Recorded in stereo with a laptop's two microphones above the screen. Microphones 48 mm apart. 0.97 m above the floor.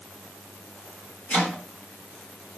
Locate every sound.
1.3 s chopping: 40° left (ahead or behind), 1.5 m